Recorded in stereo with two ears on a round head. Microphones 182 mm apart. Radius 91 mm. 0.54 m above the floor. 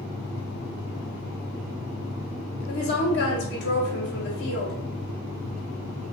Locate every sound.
2.7 s a woman speaking: 55° left (ahead or behind), 1.7 m